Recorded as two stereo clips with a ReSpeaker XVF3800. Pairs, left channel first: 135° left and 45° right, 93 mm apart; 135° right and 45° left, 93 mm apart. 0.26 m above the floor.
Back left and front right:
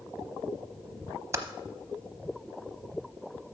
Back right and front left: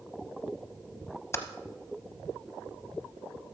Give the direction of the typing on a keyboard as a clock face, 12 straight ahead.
3 o'clock.